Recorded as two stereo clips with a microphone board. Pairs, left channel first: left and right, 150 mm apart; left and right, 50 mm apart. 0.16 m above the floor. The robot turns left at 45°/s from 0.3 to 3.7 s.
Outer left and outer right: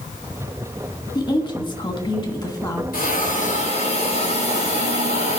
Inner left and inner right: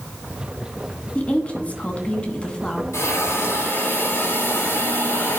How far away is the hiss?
About 5.5 m.